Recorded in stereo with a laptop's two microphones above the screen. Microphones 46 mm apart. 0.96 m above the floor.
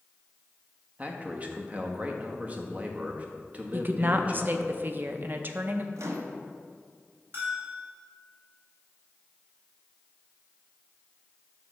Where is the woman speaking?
45° right (ahead or behind), 0.5 m.